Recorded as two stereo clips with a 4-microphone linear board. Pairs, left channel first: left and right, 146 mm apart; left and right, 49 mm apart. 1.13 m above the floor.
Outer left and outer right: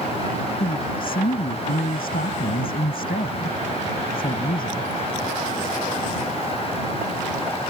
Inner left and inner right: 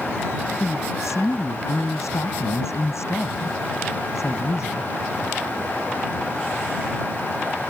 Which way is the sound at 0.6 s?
80° left.